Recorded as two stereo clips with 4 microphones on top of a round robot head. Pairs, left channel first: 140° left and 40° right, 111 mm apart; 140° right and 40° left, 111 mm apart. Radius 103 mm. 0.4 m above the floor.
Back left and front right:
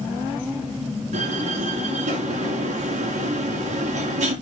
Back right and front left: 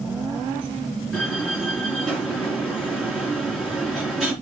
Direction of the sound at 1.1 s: 45° right.